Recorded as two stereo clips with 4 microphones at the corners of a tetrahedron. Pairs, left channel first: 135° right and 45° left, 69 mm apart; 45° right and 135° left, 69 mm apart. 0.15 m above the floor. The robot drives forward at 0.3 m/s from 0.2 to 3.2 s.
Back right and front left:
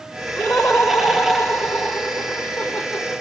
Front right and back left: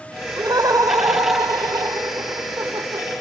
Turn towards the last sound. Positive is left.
turn(degrees=150)